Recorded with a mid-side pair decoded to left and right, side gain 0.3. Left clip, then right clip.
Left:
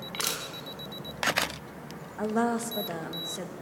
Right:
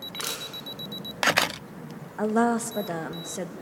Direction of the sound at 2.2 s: 50° right.